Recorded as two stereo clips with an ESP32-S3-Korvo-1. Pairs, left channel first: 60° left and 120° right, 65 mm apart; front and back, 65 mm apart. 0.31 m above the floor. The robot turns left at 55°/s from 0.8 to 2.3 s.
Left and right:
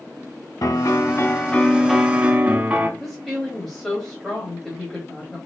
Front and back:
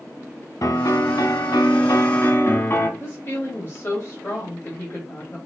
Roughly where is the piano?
Ahead left.